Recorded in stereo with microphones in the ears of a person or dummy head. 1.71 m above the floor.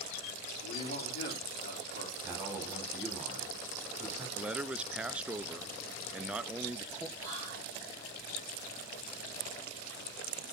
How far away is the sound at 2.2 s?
About 4.5 m.